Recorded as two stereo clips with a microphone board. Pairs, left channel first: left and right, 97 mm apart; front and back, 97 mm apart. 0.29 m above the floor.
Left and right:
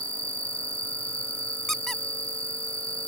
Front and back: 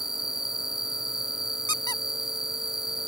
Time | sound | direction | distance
0.0 | an insect | 95° left | ?
1.7 | a squeak | 5° left | ?